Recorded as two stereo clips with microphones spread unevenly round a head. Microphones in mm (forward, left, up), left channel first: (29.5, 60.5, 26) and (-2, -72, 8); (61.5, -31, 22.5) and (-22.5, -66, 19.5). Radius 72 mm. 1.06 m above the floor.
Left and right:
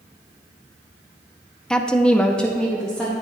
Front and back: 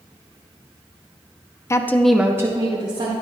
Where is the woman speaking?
15° right, 0.7 m; by 3.1 s 165° left, 1.3 m.